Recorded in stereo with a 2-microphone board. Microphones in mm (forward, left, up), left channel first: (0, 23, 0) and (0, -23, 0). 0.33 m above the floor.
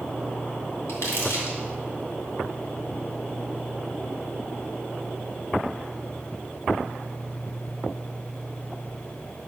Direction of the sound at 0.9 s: 65° left (ahead or behind).